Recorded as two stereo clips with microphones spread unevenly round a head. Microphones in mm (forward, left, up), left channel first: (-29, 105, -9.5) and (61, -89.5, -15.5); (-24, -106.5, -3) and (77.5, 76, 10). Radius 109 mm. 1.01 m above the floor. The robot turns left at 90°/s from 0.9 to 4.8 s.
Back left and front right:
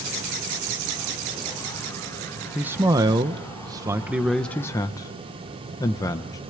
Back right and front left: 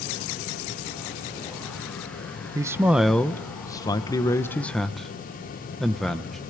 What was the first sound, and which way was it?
A man speaking, 5° left.